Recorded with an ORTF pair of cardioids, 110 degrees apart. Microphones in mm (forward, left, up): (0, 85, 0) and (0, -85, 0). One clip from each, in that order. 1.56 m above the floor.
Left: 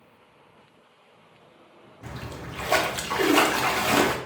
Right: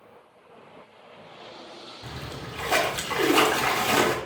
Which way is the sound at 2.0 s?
5° left.